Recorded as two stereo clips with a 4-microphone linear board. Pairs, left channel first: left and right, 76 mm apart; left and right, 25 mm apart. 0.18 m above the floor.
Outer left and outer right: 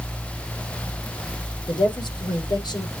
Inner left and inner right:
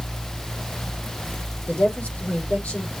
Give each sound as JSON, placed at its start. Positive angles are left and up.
{"t": 1.7, "sound": "a woman speaking", "side_deg": 80, "distance_m": 6.0}